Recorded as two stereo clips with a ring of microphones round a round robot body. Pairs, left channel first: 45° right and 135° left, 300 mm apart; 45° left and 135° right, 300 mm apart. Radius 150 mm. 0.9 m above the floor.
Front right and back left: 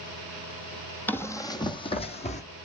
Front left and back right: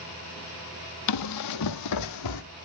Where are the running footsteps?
40° left, 1.4 m; by 2.4 s 20° left, 1.9 m.